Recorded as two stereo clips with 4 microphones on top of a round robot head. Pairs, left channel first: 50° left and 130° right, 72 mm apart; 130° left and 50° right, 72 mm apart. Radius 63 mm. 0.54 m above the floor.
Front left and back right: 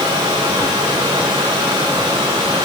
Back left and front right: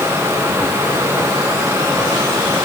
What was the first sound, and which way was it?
Only background noise.